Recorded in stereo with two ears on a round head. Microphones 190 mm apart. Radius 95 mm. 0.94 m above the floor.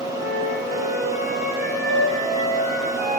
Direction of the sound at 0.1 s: 40° left (ahead or behind).